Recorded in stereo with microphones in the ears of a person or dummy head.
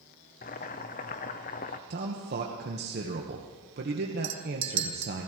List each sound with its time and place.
0.4 s boiling: 35° left (ahead or behind), 0.7 m
1.9 s a man speaking: 50° right (ahead or behind), 1.3 m
4.2 s a clink: 35° right (ahead or behind), 0.6 m